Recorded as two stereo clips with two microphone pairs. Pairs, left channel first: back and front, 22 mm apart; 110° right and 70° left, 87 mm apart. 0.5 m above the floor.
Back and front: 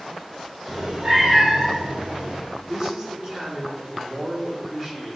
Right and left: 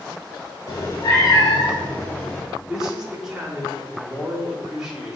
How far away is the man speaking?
About 1.0 m.